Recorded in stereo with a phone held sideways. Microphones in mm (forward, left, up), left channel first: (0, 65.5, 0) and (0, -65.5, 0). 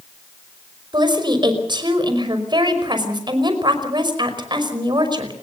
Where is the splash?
I don't hear a splash.